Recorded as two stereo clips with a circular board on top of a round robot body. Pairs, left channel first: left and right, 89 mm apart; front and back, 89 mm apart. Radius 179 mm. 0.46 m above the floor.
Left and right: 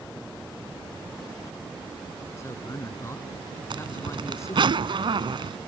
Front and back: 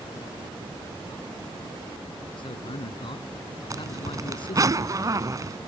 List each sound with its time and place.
2.4 s a man speaking: 30° left
3.7 s a zipper: 125° right